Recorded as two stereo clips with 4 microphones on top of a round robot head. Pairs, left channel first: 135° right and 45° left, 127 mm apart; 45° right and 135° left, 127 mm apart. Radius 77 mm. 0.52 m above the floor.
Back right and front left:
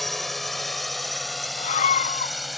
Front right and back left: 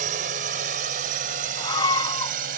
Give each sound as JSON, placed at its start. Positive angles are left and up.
{"t": 0.0, "sound": "a drone", "azimuth_deg": 135}
{"t": 1.6, "sound": "a scream", "azimuth_deg": -105}